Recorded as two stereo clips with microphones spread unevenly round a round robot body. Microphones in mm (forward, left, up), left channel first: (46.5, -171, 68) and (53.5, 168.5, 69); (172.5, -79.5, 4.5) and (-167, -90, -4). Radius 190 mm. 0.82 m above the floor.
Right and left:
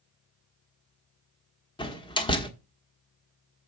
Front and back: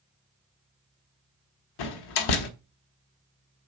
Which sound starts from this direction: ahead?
A door slam, at 1.8 s.